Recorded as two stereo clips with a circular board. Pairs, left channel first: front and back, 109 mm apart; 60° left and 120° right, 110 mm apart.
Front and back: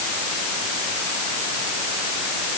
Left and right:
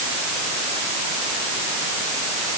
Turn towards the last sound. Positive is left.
No sound to turn to.